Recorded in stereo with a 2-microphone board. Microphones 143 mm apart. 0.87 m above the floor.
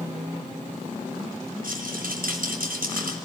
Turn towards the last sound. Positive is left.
turn(degrees=-85)